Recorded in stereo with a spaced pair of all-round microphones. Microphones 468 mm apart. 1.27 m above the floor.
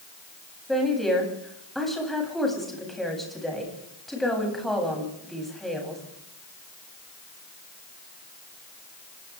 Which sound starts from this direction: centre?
A woman speaking, at 0.7 s.